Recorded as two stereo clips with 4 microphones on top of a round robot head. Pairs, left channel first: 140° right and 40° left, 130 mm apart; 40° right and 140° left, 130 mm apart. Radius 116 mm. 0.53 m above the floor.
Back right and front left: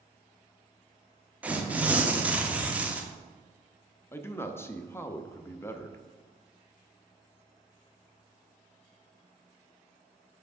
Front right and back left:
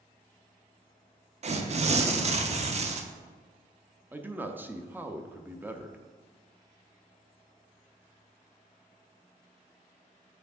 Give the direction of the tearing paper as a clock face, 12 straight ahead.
8 o'clock.